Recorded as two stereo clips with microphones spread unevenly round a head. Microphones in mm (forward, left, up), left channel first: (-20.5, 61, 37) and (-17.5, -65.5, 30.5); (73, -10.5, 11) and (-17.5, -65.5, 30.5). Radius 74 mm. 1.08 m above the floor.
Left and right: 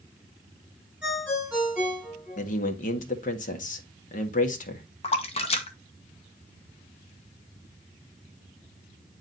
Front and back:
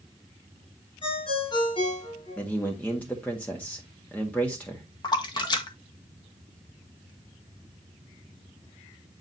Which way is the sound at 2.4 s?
110° left.